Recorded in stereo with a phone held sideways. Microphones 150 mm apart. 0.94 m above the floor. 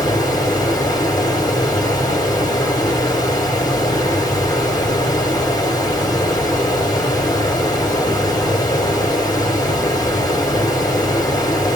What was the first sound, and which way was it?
Running water, 25° left (ahead or behind).